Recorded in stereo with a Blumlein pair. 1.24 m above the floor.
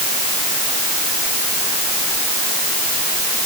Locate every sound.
Only background noise.